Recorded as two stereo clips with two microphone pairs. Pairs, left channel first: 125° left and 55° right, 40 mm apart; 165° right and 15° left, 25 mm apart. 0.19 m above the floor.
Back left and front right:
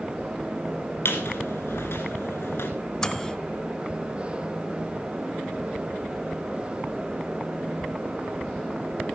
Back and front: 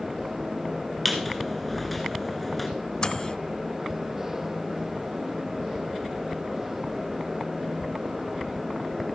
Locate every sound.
1.1 s a squeak: 105° left, 1.9 m
3.0 s a microwave: 170° right, 1.0 m